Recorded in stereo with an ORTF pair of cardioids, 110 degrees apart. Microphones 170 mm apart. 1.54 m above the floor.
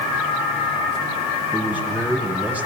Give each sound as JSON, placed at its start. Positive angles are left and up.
{"t": 1.5, "sound": "a man speaking", "azimuth_deg": -10, "distance_m": 8.5}